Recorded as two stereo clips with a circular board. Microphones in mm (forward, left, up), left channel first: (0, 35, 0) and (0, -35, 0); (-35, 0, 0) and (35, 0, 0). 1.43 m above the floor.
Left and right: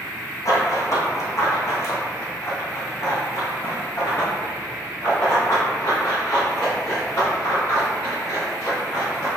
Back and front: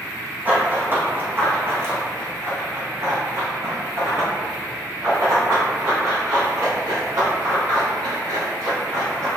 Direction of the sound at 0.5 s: 60° left.